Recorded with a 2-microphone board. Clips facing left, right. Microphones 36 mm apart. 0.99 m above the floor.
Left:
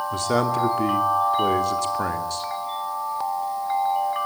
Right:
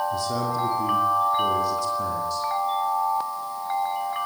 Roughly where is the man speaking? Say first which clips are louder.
Left 4 dB; left.